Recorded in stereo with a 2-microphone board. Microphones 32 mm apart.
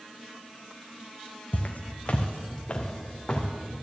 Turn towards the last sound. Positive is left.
turn(degrees=25)  # may be behind; listen again after turning